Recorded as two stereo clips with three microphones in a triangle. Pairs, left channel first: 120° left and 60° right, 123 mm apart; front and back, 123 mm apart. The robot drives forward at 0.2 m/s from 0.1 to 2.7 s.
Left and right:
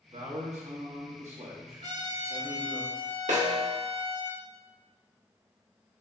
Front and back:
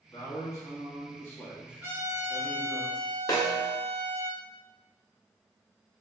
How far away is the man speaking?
About 1.5 m.